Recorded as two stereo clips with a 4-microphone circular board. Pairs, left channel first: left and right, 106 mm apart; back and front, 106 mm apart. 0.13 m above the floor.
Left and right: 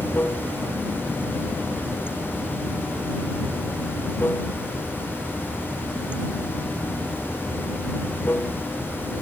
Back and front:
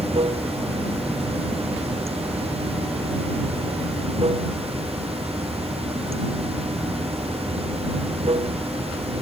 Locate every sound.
0.0 s running water: 20° left